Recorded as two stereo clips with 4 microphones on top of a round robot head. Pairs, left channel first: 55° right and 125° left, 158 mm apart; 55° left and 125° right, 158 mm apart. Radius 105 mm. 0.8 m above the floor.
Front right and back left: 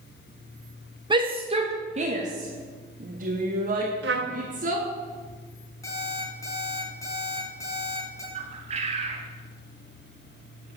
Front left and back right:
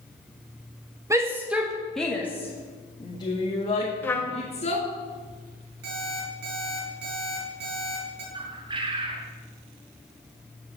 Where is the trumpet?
130° left, 0.8 m.